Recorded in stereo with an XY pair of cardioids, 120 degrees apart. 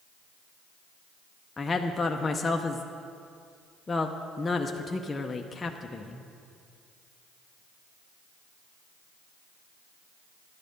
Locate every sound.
1.6 s a woman speaking: 20° left, 0.6 m